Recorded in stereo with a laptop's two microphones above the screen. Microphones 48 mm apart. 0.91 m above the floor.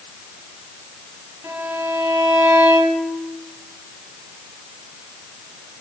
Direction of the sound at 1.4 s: 65° right (ahead or behind).